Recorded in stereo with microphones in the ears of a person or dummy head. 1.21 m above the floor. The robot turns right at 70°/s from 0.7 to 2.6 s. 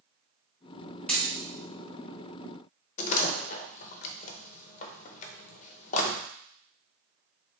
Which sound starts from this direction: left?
A door slam, at 3.0 s.